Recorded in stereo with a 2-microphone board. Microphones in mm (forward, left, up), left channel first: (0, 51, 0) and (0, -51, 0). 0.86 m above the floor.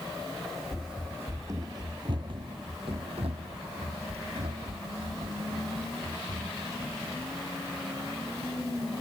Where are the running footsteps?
Centre (ahead or behind); by 7.3 s 80° right.